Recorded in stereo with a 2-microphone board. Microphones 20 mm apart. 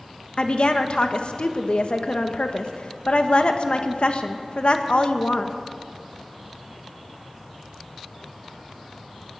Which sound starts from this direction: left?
A woman speaking, at 0.4 s.